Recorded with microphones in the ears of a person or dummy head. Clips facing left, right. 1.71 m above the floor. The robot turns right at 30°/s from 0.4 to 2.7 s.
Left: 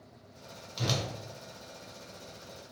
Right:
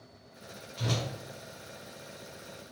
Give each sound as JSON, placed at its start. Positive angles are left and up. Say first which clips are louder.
{"t": 0.8, "sound": "a whoosh", "louder": "even", "side_deg": 55, "distance_m": 0.8}